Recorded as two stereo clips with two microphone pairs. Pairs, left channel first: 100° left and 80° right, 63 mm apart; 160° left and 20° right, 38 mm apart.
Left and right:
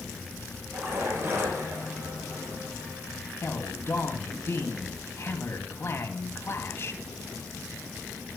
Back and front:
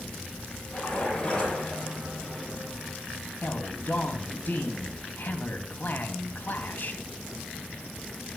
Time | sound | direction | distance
0.7 | a splash | 130° right | 8.5 m
3.4 | a man speaking | 140° left | 2 m